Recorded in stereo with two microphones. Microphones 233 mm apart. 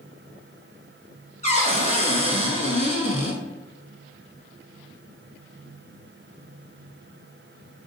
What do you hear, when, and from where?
1.4 s a cupboard door: 30° left (ahead or behind), 0.7 m